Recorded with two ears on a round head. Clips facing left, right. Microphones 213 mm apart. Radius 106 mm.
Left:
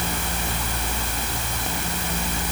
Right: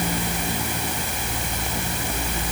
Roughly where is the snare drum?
I don't hear a snare drum.